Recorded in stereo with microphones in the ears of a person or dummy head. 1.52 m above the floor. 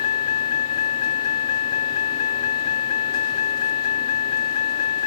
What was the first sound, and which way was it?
A vehicle, 45° left (ahead or behind).